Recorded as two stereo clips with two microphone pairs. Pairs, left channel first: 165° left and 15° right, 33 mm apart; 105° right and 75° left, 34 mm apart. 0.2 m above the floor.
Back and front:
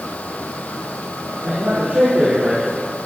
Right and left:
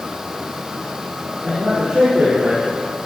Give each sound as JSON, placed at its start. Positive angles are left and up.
{"t": 1.4, "sound": "a man speaking", "azimuth_deg": 30, "distance_m": 3.5}